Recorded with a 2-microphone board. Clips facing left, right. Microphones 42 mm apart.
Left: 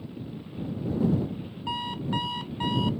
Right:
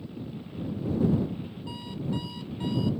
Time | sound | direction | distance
1.7 | an alarm clock | 60° left (ahead or behind) | ?